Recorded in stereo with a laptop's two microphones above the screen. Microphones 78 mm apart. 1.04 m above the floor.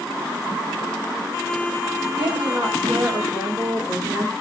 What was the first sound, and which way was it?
A woman speaking, 20° right (ahead or behind).